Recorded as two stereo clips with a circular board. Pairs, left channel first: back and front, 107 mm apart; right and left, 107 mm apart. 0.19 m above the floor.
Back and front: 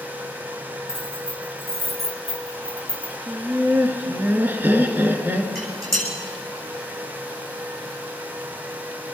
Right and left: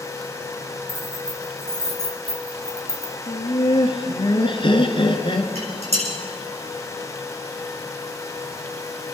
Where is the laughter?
70° right, 2 m.